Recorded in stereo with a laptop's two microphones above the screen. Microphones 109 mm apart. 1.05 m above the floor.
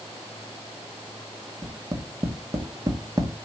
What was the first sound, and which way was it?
Tapping, 30° right (ahead or behind).